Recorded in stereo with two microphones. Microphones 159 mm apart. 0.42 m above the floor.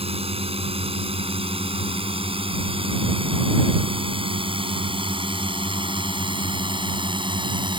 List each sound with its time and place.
0.0 s a drone: 35° right (ahead or behind); by 7.8 s 30° right (ahead or behind)